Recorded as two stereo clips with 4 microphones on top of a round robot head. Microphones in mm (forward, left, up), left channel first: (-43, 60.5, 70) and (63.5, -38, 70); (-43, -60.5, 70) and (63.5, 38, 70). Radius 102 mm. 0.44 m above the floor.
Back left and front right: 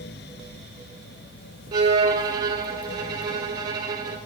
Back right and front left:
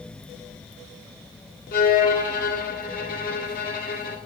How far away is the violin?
About 1.7 m.